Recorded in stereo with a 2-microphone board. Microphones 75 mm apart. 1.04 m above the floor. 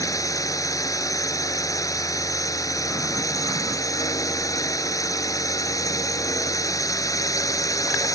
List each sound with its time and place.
0.0 s a drone: 50° left (ahead or behind)